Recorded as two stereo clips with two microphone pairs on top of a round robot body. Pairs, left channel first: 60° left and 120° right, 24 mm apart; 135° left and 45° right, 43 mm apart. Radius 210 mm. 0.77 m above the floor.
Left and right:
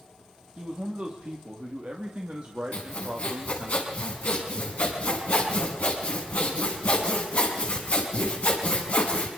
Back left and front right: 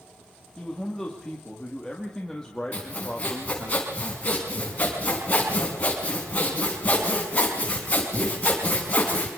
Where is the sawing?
80° left, 4.5 m.